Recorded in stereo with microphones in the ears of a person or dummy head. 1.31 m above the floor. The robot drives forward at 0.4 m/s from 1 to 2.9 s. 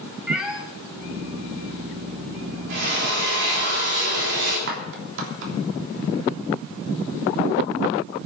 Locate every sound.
0.3 s a cat meowing: 10° right (ahead or behind), 2 m
2.7 s a drill: 65° right (ahead or behind), 8.5 m
4.7 s a clap: 65° right (ahead or behind), 3 m